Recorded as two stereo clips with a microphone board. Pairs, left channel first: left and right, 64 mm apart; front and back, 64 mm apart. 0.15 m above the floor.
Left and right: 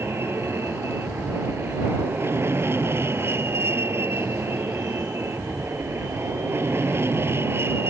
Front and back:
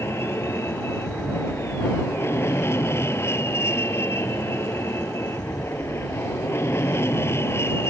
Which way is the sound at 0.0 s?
45° right.